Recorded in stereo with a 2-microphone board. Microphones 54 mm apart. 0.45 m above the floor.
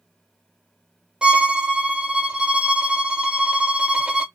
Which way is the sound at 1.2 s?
20° right (ahead or behind).